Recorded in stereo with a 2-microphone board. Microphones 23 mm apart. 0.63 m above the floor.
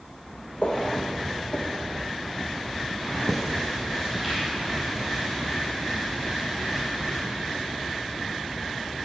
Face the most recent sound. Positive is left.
turn(degrees=-30)  # may be behind; listen again after turning